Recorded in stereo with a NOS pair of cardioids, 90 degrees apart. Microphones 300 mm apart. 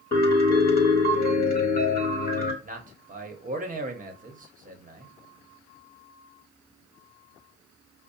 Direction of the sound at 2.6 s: 25° right.